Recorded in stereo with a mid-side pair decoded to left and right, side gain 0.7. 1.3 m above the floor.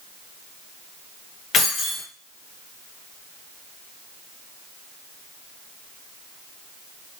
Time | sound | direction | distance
1.5 | keys jangling | 45° left | 1.0 m